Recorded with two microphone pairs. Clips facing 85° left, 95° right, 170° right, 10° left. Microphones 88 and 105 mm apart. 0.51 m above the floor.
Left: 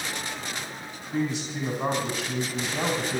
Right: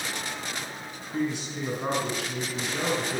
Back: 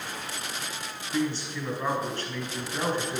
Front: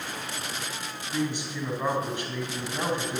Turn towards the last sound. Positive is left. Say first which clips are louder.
# left 1 dB, back 1 dB
turn(degrees=85)